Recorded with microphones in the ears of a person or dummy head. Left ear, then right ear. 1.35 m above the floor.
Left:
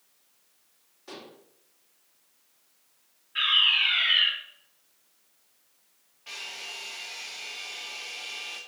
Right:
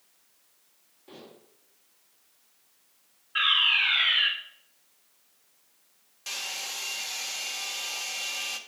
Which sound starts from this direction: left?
Dishes clattering, at 1.1 s.